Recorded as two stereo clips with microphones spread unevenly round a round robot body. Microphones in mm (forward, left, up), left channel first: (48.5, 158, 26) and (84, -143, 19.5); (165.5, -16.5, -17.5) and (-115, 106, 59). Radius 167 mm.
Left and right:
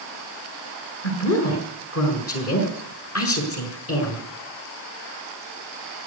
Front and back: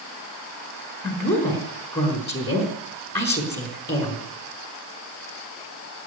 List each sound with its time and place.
1.0 s a woman speaking: 55° left, 5 m